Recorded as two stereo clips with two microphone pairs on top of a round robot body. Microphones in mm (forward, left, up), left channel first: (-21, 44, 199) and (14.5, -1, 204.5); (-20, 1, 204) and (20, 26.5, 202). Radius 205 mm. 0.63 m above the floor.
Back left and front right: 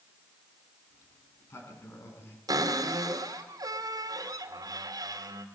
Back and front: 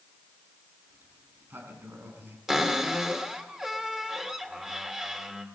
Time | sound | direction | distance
0.9 | a sliding door | 80° left | 5 m
2.5 | a cupboard door | 50° right | 3 m